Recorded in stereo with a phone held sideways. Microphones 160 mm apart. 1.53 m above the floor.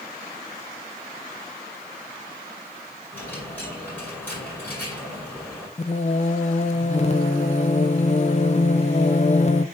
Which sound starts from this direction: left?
Singing, at 5.8 s.